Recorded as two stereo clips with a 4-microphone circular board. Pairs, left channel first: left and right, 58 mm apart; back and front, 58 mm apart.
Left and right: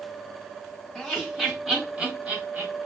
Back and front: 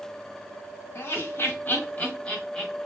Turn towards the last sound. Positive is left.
turn(degrees=-100)